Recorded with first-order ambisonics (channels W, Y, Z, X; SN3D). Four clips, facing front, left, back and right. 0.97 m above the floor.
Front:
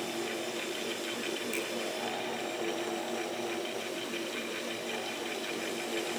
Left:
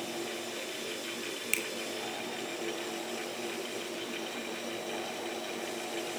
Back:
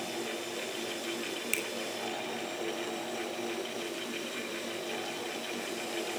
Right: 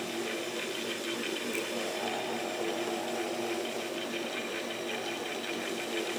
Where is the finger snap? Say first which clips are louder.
Left 5 dB, back 4 dB; 125° left, 3 m.